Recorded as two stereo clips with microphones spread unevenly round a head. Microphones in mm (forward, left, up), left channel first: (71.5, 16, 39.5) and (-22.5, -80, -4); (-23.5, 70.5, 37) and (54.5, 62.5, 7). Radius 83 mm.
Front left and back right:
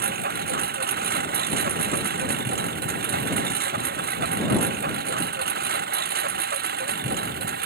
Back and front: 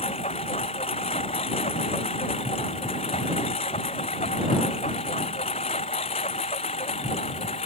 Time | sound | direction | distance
0.0 | a lawn mower | 135° right | ?